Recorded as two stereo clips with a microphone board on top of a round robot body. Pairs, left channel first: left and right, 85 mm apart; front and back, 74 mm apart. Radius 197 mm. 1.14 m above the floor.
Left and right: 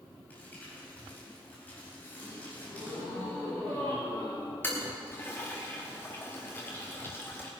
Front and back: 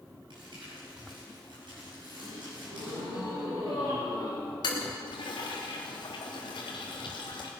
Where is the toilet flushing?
25° left, 1.1 m.